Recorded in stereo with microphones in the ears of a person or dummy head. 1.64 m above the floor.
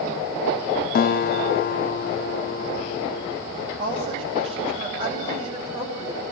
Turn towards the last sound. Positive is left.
turn(degrees=-30)  # may be behind; listen again after turning